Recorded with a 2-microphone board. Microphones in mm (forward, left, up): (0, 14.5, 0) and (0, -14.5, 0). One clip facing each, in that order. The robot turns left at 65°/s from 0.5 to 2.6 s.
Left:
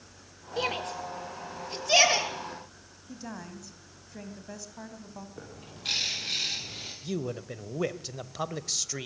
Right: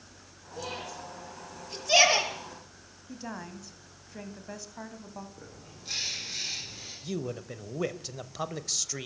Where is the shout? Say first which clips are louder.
Left 7 dB; 80° left, 5 m; by 2.3 s 20° right (ahead or behind), 5 m.